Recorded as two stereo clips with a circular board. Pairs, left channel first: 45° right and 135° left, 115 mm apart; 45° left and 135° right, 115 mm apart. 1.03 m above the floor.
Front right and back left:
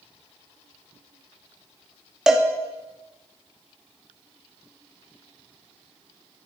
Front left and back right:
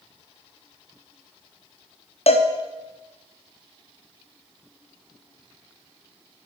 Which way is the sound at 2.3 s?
50° left.